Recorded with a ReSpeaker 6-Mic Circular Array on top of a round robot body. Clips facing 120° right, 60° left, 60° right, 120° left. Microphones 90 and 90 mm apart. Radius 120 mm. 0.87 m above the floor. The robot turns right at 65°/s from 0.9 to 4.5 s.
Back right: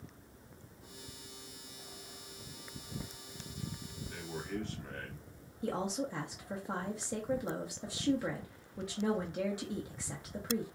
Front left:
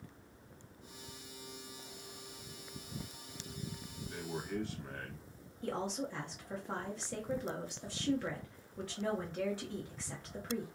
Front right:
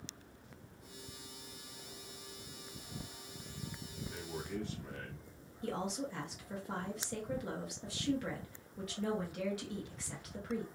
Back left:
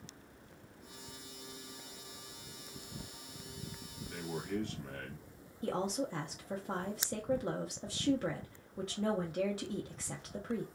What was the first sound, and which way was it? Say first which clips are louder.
A man speaking: front left 1 dB, back left 5 dB; 120° left.